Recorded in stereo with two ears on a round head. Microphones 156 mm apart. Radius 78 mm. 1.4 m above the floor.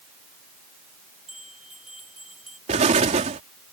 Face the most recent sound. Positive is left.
turn(degrees=-40)  # may be behind; listen again after turning